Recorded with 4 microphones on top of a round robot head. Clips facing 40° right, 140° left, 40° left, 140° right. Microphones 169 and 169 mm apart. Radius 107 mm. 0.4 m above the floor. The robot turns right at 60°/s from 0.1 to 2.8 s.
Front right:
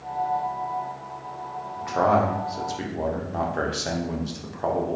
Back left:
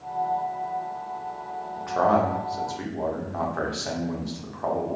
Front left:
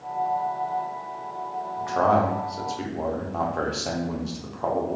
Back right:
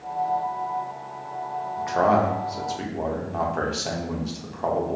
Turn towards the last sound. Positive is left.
turn(degrees=-55)